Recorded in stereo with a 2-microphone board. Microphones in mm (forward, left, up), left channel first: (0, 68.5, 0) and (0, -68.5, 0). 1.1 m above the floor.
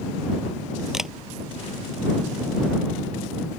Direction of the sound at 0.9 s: 5° right (ahead or behind).